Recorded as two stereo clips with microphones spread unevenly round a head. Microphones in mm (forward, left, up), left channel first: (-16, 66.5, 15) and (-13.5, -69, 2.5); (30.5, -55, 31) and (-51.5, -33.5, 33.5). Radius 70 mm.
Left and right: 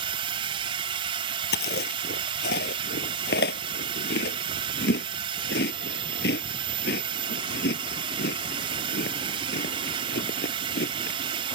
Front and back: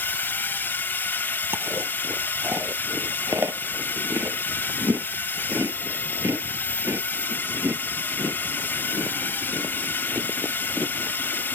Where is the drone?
65° right.